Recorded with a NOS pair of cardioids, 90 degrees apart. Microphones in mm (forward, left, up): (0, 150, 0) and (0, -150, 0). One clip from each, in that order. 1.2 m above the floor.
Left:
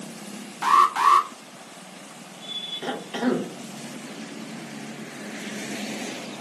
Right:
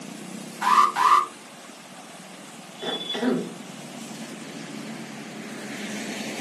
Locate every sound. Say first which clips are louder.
0.6 s an alarm: left 1 dB; 5° left, 0.6 m
2.8 s a cough: right 4 dB; 10° left, 0.5 m